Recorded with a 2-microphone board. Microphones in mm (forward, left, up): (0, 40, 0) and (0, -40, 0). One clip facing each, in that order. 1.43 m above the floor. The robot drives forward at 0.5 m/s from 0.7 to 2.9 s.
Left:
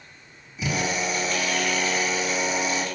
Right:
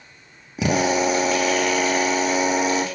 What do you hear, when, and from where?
0.6 s a drill: 80° right, 1.3 m; by 2.9 s 55° right (ahead or behind), 1.6 m